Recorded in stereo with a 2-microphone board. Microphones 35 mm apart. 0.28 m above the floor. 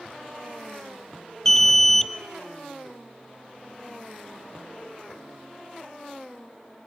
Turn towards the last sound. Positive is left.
turn(degrees=10)  # may be behind; listen again after turning